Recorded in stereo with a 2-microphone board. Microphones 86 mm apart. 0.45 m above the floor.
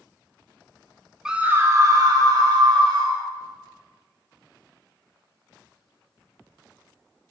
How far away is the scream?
About 0.7 m.